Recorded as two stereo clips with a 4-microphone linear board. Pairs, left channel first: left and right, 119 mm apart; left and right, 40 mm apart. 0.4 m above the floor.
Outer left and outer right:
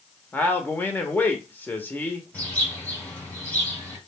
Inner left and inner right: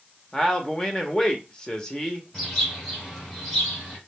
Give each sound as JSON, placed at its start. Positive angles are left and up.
{"t": 0.3, "sound": "a man speaking", "side_deg": 15, "distance_m": 0.8}
{"t": 2.3, "sound": "a bird", "side_deg": 15, "distance_m": 1.9}